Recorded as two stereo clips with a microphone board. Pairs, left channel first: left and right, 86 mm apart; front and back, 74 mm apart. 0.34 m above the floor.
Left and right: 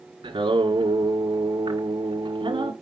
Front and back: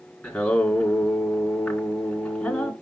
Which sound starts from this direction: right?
Singing, at 0.2 s.